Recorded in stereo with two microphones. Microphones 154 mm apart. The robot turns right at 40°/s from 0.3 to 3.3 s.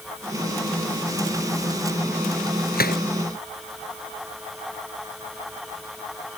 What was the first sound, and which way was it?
A gunshot, 80° left.